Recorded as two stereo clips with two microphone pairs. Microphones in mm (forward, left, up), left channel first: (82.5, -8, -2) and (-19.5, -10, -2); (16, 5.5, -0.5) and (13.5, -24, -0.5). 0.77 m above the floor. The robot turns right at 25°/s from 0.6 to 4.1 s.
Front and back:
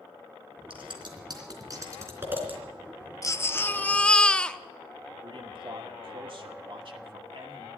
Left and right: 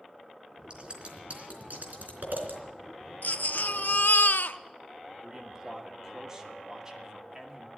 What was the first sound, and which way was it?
Scissors, 150° right.